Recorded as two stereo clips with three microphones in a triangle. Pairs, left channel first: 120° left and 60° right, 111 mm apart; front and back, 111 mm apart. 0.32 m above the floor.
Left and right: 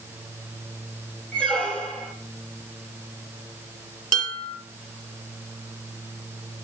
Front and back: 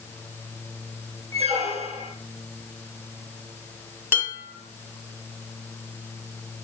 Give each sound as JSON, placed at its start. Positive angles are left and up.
{"t": 1.3, "sound": "a squeak", "azimuth_deg": -160, "distance_m": 3.0}
{"t": 4.1, "sound": "dishes clattering", "azimuth_deg": -105, "distance_m": 4.0}